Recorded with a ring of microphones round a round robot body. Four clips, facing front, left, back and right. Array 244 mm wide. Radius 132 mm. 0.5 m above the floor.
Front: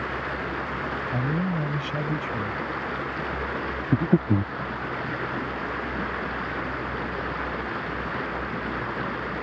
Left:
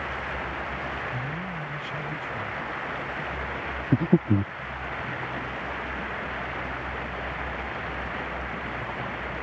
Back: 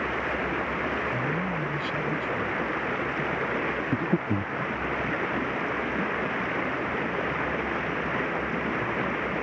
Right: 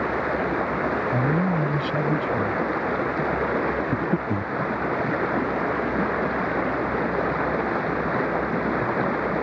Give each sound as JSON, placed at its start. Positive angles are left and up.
{"t": 0.0, "sound": "running water", "azimuth_deg": -100}
{"t": 1.1, "sound": "a man speaking", "azimuth_deg": -70}
{"t": 3.9, "sound": "breathing", "azimuth_deg": 40}